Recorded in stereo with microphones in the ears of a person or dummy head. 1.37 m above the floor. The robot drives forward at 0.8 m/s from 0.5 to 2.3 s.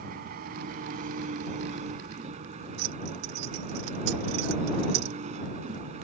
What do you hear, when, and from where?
0.0 s an engine running: 55° right (ahead or behind); by 6.0 s 45° right (ahead or behind)
2.8 s keys jangling: 65° right (ahead or behind)